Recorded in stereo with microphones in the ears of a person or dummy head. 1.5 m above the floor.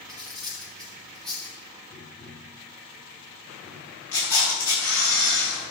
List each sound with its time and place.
0.1 s cutlery clinking: centre (ahead or behind), 1.9 m
1.9 s tapping: 30° left (ahead or behind), 2.5 m
4.1 s a camera shutter: 25° left (ahead or behind), 4.5 m